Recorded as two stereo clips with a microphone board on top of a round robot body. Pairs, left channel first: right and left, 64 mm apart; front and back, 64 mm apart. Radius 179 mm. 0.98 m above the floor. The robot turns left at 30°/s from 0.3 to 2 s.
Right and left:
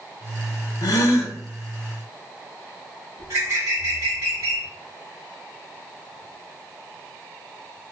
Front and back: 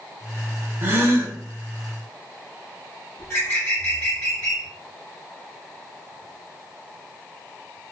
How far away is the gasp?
About 0.6 m.